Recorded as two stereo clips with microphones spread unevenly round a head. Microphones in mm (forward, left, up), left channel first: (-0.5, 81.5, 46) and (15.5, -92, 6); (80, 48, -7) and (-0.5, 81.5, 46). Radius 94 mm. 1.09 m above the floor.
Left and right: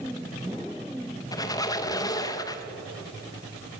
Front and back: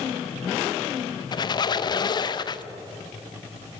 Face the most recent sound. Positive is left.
turn(degrees=25)